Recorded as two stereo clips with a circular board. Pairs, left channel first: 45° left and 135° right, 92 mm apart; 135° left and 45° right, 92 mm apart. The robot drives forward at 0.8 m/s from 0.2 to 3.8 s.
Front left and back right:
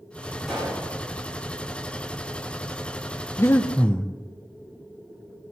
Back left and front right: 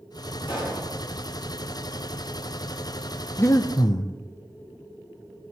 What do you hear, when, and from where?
0.5 s a pop: 140° left, 9.5 m
3.4 s breathing: 90° left, 0.7 m; by 4.1 s 120° left, 0.8 m